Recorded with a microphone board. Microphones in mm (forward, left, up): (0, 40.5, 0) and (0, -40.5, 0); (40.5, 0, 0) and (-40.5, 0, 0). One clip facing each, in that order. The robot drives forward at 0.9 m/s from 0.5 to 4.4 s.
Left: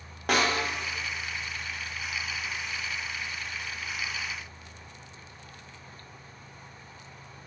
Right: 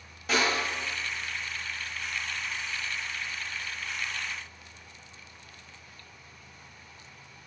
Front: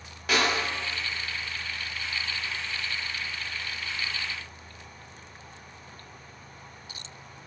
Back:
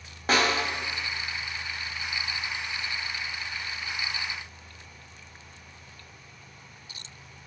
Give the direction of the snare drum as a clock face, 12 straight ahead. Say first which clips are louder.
Left 2 dB, back 2 dB; 8 o'clock.